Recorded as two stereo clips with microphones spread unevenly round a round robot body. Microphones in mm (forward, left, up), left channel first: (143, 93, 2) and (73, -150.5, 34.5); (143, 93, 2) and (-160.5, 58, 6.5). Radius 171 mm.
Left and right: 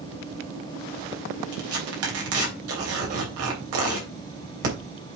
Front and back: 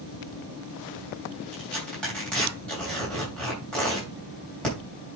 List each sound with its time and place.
1.5 s tearing paper: 80° right, 3.5 m